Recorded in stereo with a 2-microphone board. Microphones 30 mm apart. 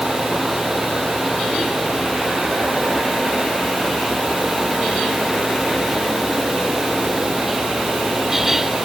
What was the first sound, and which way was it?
Only background noise.